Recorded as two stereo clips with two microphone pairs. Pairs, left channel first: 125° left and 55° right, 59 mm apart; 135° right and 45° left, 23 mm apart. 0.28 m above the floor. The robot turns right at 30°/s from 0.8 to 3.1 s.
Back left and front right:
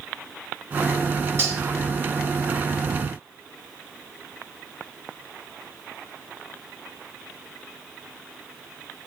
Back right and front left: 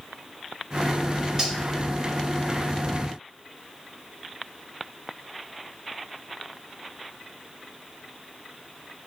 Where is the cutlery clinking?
15° right, 1.3 m; by 1.6 s 10° right, 1.3 m.